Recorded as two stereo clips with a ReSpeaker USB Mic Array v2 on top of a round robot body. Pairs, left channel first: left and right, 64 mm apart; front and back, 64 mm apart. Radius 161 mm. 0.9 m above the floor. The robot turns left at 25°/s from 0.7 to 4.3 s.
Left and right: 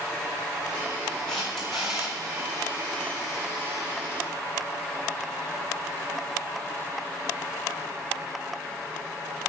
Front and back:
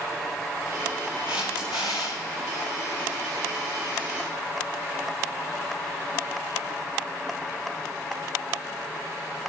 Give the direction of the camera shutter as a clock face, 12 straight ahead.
12 o'clock.